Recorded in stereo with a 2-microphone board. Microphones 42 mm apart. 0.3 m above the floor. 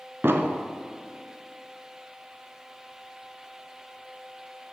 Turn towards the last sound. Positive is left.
turn(degrees=-75)  # may be behind; listen again after turning